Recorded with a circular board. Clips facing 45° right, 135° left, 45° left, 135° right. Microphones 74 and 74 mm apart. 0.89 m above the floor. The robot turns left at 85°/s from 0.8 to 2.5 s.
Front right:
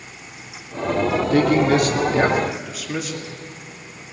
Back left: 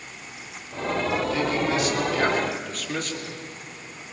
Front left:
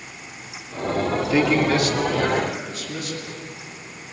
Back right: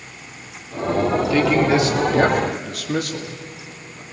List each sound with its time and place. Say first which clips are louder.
1.3 s a man speaking: front right 8 dB, back right 1 dB; 25° right, 1.9 m; by 4.0 s 130° right, 1.9 m